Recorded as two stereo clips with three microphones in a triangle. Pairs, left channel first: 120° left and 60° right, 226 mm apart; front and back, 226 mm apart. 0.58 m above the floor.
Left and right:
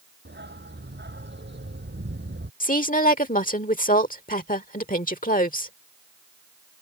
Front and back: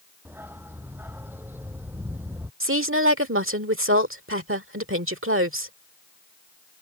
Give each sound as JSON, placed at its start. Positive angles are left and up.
{"t": 0.2, "sound": "a dog barking", "azimuth_deg": -100}
{"t": 2.6, "sound": "a woman speaking", "azimuth_deg": 170}